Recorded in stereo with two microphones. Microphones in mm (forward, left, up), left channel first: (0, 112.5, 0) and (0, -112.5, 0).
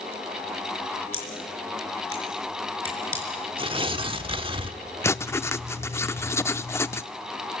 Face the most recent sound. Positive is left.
turn(degrees=10)  # may be behind; listen again after turning